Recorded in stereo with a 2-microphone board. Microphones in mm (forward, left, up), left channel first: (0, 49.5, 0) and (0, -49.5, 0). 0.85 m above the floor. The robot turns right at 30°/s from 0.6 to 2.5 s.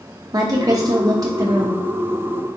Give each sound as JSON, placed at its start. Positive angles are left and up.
{"t": 0.3, "sound": "a woman speaking", "azimuth_deg": -100, "distance_m": 0.5}